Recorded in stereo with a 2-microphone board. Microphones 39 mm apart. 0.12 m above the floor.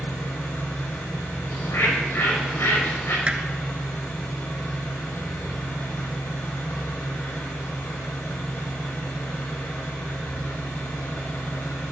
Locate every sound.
0.0 s an engine running: 80° left, 8 m
1.5 s a bird: 75° left (ahead or behind), 7.5 m
3.3 s hammering: 25° right (ahead or behind), 1.7 m